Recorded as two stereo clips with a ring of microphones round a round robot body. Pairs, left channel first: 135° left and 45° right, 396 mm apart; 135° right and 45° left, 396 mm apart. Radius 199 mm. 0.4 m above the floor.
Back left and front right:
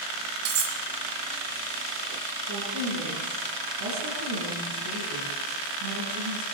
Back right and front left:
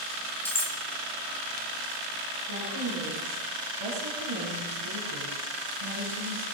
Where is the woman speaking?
Straight ahead, 5.5 m.